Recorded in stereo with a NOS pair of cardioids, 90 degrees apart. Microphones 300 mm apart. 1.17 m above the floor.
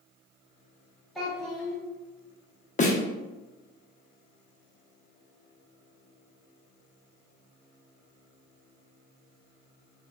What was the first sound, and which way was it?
A child speaking, straight ahead.